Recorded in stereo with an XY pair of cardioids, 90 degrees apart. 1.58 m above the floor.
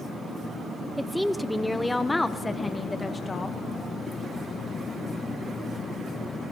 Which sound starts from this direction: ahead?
A woman speaking, at 1.0 s.